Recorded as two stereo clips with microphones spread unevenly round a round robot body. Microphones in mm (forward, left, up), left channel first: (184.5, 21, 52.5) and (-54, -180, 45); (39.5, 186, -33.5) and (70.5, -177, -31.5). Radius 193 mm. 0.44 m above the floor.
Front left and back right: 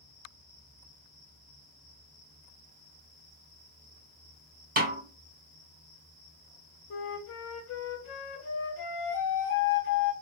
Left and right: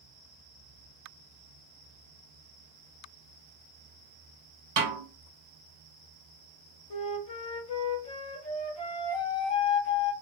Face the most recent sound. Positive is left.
turn(degrees=65)